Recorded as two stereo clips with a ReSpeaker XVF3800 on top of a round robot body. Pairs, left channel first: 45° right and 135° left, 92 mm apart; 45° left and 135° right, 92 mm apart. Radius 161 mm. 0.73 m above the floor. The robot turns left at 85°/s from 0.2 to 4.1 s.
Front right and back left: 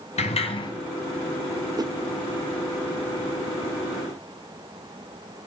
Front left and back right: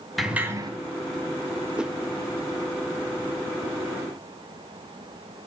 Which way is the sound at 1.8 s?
150° left.